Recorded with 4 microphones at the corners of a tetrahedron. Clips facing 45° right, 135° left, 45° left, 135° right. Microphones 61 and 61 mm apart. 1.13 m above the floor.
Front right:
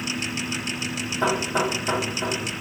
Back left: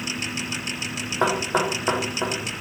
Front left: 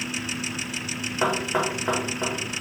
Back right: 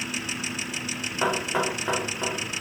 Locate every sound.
1.2 s knocking: 125° left, 1.2 m